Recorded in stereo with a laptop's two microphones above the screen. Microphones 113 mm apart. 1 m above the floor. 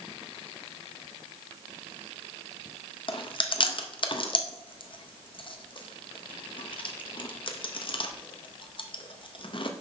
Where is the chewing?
50° left (ahead or behind), 0.5 m.